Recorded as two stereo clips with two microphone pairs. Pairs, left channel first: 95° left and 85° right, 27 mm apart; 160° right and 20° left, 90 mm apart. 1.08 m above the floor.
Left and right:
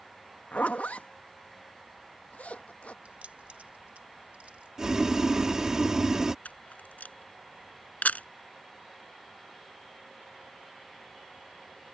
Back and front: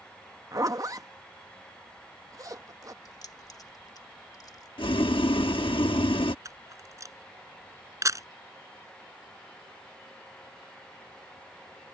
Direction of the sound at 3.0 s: 110° right.